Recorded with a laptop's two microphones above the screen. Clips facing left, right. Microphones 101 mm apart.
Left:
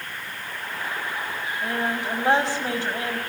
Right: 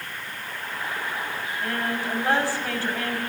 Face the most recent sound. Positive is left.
turn(degrees=20)  # may be behind; listen again after turning